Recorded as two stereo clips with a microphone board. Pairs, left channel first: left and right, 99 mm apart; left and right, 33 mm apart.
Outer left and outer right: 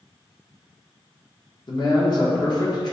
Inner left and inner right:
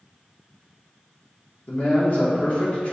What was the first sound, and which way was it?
A man speaking, 45° left (ahead or behind).